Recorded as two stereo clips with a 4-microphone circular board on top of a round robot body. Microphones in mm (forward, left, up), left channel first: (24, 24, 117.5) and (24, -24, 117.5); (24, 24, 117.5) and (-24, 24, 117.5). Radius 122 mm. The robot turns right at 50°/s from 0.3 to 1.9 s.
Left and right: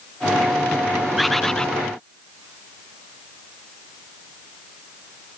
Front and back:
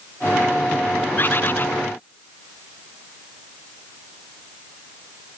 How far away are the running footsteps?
I don't hear running footsteps.